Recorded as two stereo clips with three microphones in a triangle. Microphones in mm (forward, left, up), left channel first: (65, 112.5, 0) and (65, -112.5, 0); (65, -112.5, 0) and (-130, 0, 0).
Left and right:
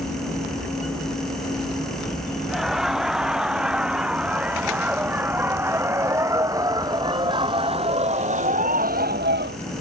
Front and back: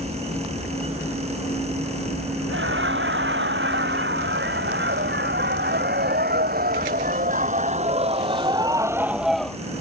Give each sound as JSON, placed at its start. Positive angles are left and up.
{"t": 2.5, "sound": "laughter", "azimuth_deg": 180}